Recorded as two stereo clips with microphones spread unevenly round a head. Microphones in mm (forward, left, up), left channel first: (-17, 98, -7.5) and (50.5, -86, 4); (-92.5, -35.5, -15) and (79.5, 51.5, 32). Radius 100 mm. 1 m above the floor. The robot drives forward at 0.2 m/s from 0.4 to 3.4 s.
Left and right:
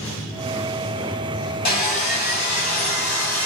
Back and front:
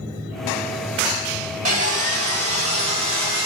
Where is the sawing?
65° left, 1.5 m; by 3.5 s 80° left, 1.4 m.